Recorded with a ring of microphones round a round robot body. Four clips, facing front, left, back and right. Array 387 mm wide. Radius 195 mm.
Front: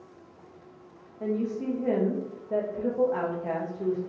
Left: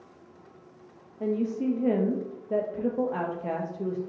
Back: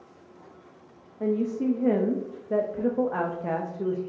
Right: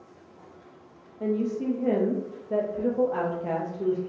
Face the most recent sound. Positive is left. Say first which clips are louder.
# even, back 3 dB
turn(degrees=160)